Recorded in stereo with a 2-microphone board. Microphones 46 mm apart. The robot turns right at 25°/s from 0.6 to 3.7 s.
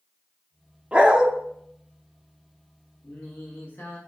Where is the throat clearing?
I don't hear throat clearing.